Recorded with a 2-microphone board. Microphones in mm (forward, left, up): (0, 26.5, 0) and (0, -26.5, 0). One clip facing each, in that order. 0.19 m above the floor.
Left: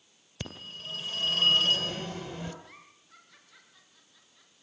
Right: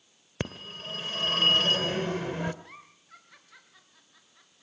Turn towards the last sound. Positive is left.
turn(degrees=-50)  # may be behind; listen again after turning